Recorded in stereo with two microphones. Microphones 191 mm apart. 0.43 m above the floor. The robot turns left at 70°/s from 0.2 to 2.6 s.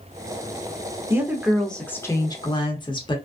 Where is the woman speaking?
15° right (ahead or behind), 0.8 m; by 3.2 s 25° left (ahead or behind), 0.8 m.